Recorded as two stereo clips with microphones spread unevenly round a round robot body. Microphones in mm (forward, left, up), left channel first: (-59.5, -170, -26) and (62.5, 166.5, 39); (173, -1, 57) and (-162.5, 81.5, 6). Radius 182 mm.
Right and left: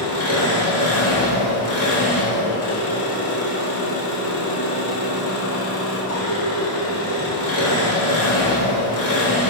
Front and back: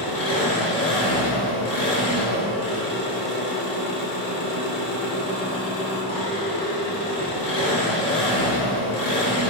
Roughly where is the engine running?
Right.